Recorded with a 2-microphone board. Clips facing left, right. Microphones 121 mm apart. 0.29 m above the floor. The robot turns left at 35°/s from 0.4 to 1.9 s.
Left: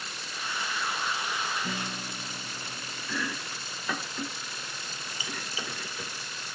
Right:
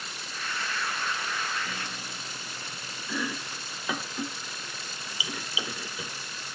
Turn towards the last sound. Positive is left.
turn(degrees=-10)  # may be behind; listen again after turning